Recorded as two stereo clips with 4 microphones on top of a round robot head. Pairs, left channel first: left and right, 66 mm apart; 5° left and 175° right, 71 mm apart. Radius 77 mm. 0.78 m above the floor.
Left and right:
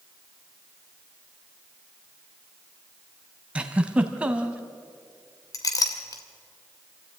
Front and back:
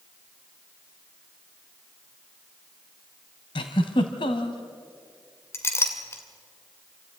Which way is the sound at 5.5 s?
60° left.